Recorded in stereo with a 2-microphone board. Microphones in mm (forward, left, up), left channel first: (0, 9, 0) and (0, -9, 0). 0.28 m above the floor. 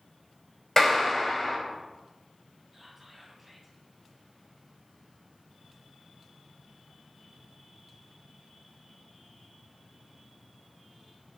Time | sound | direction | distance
0.8 | a clap | 30° left (ahead or behind) | 1.4 m
2.7 | whispering | 10° right (ahead or behind) | 1.9 m